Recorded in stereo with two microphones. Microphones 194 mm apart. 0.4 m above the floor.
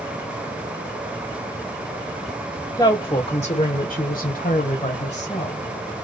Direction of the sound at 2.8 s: 15° left (ahead or behind).